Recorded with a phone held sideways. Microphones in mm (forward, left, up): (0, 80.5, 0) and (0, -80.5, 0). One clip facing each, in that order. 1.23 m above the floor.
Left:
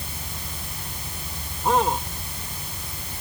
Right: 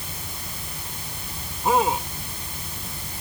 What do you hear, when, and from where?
1.6 s a man speaking: 5° right (ahead or behind)